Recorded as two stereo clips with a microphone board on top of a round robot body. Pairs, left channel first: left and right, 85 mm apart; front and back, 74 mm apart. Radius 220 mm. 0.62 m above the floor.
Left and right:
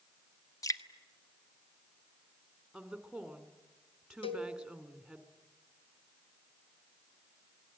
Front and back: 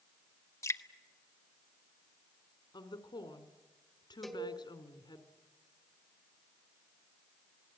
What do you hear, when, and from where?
0.6 s dripping: 45° left, 1.7 m
2.7 s a woman speaking: 5° right, 3.5 m
4.2 s a cowbell: 90° left, 3 m